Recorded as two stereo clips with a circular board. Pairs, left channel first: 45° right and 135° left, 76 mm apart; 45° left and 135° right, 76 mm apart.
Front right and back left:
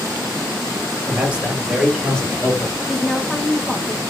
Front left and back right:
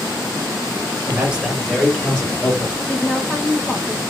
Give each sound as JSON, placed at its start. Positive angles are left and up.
{"t": 1.1, "sound": "a man speaking", "azimuth_deg": 180, "distance_m": 1.1}
{"t": 2.9, "sound": "a woman speaking", "azimuth_deg": -65, "distance_m": 0.9}